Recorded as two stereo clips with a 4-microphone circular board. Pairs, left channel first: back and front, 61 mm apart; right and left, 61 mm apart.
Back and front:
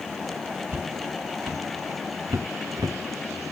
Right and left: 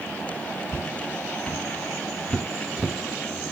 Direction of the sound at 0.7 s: 40° right.